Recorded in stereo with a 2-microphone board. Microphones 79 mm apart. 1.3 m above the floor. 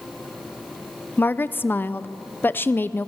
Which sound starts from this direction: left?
A woman speaking, at 1.2 s.